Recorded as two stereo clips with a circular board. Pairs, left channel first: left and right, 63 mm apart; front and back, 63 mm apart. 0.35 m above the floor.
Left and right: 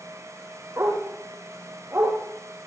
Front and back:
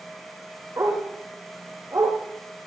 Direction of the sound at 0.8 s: 145° right.